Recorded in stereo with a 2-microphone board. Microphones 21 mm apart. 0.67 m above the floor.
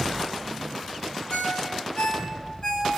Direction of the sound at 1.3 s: 50° left (ahead or behind).